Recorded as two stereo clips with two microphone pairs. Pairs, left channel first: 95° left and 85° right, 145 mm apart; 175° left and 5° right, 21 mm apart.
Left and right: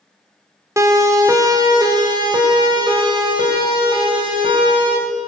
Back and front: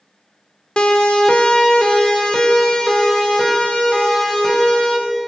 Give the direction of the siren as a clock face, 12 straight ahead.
5 o'clock.